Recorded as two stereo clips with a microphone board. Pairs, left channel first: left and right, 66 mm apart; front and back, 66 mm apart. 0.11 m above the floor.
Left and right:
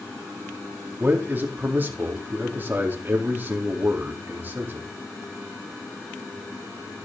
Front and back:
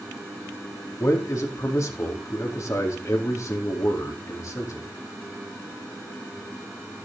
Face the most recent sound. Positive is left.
turn(degrees=-35)